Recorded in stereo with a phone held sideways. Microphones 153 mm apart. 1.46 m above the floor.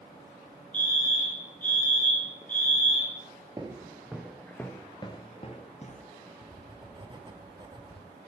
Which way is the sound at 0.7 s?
10° left (ahead or behind).